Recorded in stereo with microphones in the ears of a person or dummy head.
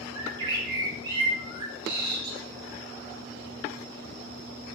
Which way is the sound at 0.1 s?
25° right (ahead or behind).